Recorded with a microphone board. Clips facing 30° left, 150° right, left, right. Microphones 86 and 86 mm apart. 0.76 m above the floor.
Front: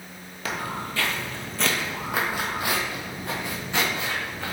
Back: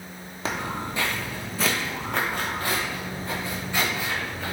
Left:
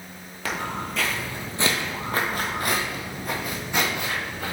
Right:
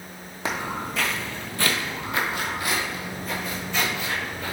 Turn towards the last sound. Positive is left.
turn(degrees=95)